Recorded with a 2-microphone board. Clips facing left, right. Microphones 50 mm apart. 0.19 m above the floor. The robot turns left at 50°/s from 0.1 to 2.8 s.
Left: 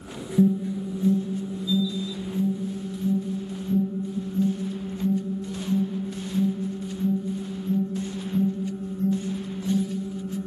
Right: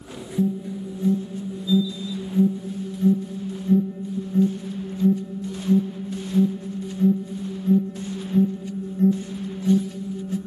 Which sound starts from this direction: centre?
An alarm, at 0.4 s.